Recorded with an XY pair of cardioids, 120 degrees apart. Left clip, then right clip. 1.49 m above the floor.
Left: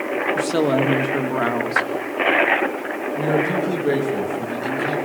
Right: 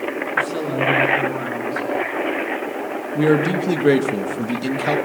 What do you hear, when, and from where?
0.3 s a woman speaking: 50° left, 2.5 m
3.1 s a man speaking: 55° right, 2.5 m